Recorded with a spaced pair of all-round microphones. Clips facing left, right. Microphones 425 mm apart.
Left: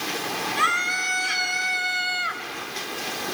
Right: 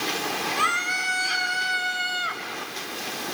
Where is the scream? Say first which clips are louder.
Left 1 dB; 35° left (ahead or behind), 4.5 m; by 2.4 s 40° left (ahead or behind), 3 m.